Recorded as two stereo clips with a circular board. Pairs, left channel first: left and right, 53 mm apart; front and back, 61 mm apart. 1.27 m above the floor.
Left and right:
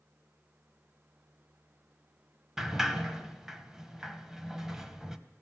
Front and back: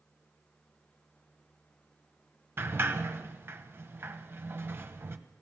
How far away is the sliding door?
About 1.3 m.